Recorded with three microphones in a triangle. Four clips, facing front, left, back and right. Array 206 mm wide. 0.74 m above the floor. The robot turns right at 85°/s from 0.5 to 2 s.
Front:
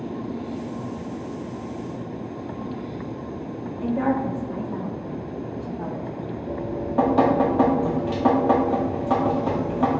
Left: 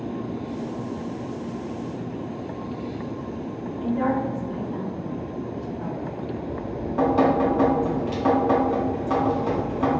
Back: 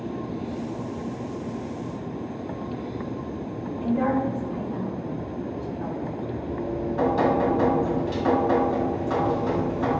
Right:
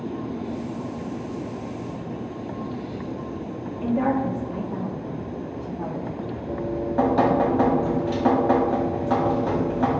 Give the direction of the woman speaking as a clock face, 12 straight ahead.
1 o'clock.